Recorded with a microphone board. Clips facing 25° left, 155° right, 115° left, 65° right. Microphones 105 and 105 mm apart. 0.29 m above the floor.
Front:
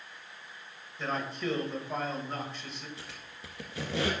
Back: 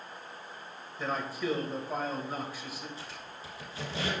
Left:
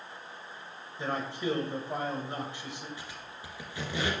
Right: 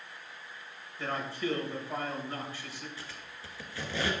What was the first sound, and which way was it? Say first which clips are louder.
A man speaking: even, left 1 dB; 130° left.